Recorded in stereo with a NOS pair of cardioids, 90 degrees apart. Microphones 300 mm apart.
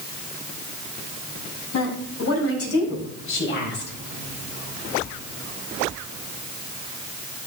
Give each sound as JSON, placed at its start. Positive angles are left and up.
{"t": 1.7, "sound": "a woman speaking", "azimuth_deg": 60, "distance_m": 5.5}